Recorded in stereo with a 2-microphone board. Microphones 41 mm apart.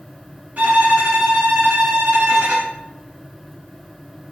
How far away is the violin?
About 1.1 m.